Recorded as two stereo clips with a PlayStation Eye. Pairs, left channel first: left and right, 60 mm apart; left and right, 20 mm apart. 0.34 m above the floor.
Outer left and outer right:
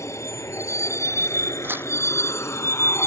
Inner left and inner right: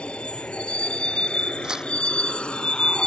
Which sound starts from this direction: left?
A vehicle, at 0.0 s.